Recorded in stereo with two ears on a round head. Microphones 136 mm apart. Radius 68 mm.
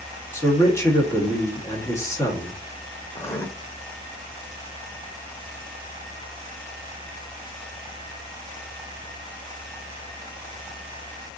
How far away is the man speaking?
About 1.0 m.